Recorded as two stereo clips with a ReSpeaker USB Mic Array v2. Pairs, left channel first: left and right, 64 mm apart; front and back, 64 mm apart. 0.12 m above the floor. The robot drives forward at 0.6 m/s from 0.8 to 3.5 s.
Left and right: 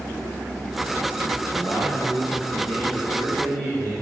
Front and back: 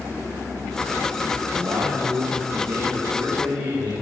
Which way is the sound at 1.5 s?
165° left.